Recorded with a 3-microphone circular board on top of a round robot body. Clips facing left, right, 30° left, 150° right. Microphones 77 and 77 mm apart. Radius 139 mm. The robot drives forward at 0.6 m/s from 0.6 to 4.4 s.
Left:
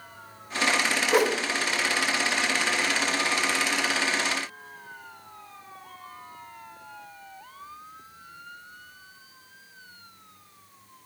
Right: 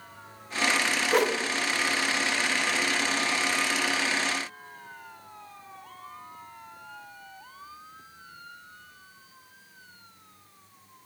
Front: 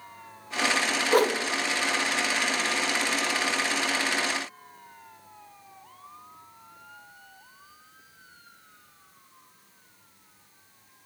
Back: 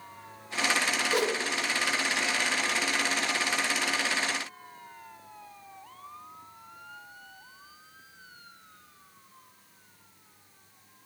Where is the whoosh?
5° left, 1.0 m.